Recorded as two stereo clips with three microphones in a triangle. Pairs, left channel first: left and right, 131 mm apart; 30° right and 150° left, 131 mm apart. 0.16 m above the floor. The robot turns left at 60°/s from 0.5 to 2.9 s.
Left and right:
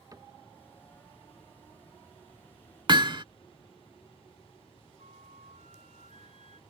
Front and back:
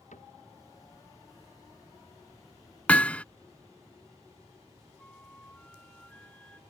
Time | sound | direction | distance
0.1 | a cupboard door | 30° right | ?
2.9 | hammering | 105° right | ?
5.0 | a flute | 110° right | ?